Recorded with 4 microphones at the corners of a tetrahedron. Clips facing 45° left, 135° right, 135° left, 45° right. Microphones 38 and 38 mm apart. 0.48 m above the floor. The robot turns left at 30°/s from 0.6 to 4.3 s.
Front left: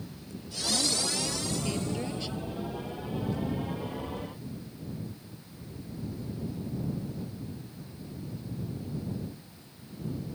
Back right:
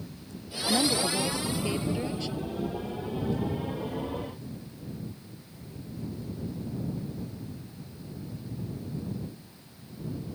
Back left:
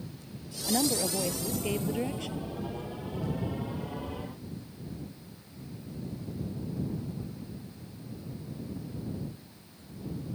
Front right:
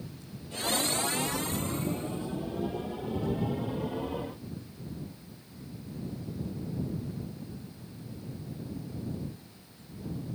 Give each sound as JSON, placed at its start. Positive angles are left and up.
{"t": 0.7, "sound": "a woman speaking", "azimuth_deg": 180}